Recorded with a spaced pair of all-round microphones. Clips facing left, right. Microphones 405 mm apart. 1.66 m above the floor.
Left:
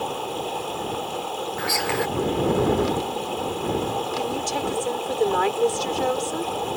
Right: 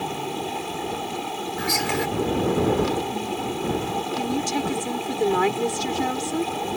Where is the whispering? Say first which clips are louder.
Right 1 dB; 45° right (ahead or behind).